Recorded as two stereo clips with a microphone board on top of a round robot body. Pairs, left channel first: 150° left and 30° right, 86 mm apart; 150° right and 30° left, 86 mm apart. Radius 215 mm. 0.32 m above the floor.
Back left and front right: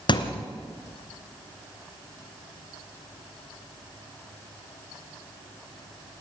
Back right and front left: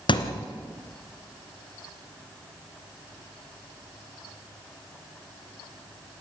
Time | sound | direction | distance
0.1 | a thud | straight behind | 1.8 m